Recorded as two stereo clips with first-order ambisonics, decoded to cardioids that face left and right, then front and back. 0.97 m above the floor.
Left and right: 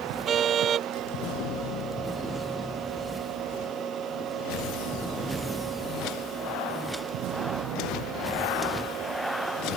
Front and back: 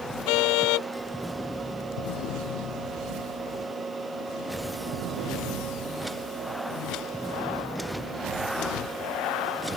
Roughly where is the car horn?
Ahead right.